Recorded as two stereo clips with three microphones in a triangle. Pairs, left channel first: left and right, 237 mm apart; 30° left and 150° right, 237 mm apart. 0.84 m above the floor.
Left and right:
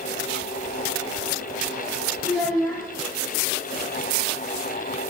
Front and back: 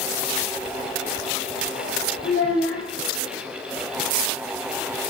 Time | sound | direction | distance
2.2 | a child speaking | 10° left | 1.2 m